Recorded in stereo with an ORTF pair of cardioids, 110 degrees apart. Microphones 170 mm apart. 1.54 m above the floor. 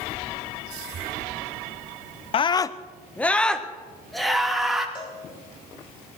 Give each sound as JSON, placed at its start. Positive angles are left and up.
{"t": 2.3, "sound": "a scream", "azimuth_deg": 35, "distance_m": 0.6}
{"t": 5.0, "sound": "a cowbell", "azimuth_deg": 30, "distance_m": 4.0}